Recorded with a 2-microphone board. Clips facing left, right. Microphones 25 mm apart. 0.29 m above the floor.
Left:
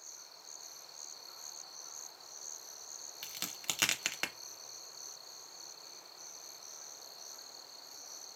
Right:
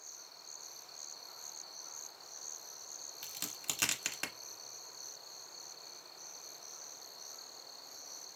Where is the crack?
25° left (ahead or behind), 0.6 m.